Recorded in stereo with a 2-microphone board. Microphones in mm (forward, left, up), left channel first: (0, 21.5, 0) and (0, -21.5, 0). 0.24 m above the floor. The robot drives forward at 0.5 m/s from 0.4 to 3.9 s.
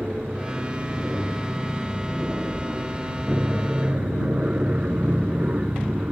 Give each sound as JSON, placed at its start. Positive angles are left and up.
{"t": 0.0, "sound": "an aircraft", "side_deg": -35}